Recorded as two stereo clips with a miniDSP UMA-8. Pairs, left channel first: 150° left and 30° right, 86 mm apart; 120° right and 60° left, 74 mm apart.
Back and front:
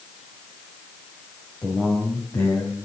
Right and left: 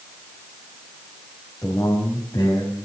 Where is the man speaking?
160° right, 3.5 m.